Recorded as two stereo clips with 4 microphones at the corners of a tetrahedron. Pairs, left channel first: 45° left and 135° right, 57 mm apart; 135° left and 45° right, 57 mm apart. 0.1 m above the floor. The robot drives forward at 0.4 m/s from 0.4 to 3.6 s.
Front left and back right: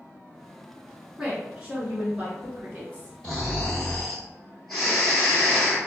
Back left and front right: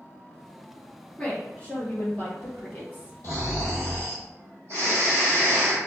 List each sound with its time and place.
1.2 s a woman speaking: 160° left, 1.2 m; by 3.1 s 175° left, 1.7 m
3.2 s snoring: 125° left, 1.7 m; by 5.8 s 130° left, 1.8 m